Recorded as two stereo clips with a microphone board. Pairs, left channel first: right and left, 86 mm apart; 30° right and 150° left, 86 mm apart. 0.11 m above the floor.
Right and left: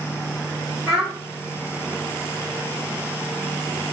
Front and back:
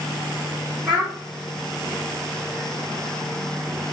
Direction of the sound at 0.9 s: 140° right.